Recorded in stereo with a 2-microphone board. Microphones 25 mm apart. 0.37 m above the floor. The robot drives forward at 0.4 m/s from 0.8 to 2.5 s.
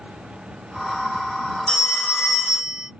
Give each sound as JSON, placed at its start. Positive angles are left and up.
{"t": 1.7, "sound": "a phone ringing", "side_deg": 65, "distance_m": 1.3}